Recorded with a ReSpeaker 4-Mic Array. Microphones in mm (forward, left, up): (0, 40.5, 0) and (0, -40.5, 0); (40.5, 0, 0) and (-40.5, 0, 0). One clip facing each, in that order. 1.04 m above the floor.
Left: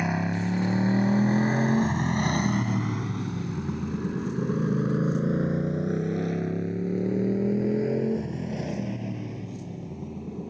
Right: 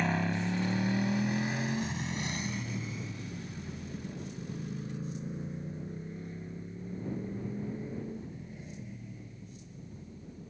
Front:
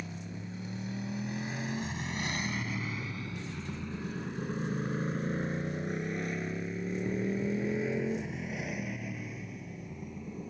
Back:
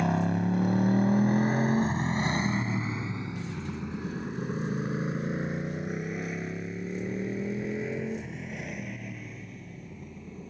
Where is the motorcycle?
170° left; by 10.5 s 85° left.